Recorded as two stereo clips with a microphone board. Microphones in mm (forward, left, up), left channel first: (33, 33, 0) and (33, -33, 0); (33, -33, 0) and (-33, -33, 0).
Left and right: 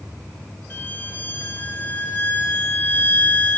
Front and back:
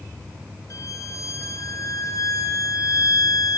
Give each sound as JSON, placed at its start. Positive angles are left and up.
{"t": 0.7, "sound": "a violin", "azimuth_deg": 30, "distance_m": 2.5}